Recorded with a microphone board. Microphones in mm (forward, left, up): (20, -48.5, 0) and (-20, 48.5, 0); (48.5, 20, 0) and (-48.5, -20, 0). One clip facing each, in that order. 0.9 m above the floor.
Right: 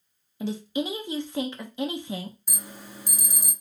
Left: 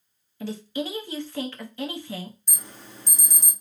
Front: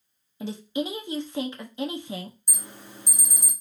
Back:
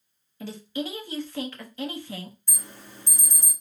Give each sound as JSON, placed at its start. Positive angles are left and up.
{"t": 0.4, "sound": "a woman speaking", "azimuth_deg": -20, "distance_m": 0.8}
{"t": 2.5, "sound": "an alarm", "azimuth_deg": -10, "distance_m": 1.0}